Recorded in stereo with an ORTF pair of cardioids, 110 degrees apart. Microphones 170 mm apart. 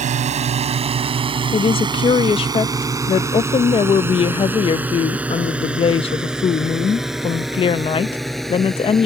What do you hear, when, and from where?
0.0 s a drone: 45° right; by 9.1 s straight ahead
1.5 s a woman speaking: 35° left